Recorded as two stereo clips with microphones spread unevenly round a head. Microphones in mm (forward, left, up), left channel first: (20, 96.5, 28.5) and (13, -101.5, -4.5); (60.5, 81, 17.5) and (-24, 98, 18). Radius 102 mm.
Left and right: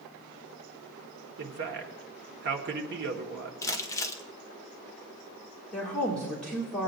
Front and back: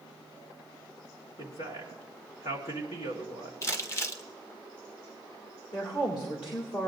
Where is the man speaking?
50° right, 1.5 m.